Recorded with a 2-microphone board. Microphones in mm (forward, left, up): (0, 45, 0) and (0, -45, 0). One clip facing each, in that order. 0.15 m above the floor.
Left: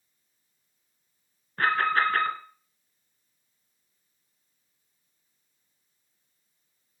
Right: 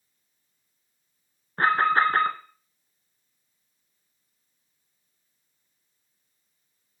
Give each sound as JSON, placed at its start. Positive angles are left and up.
{"t": 1.6, "sound": "an alarm", "side_deg": -30, "distance_m": 1.1}